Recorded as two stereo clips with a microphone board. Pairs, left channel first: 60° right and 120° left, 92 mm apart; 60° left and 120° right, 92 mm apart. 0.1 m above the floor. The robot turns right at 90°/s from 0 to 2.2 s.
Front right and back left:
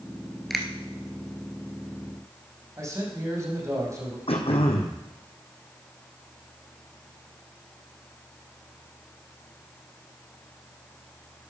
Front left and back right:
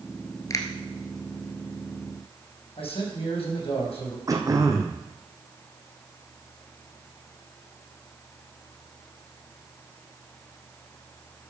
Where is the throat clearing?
65° right, 1.9 m.